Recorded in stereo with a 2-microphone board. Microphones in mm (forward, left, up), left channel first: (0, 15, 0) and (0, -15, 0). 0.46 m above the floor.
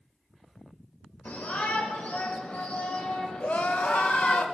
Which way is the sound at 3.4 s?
55° left (ahead or behind).